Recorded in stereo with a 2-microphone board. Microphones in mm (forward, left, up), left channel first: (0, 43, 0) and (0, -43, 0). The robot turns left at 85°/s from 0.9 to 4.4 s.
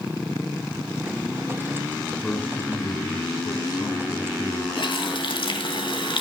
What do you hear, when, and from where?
2.2 s a man speaking: 175° left, 4 m; by 4.7 s 10° right, 4 m
4.8 s a running tap: 70° left (ahead or behind), 2.5 m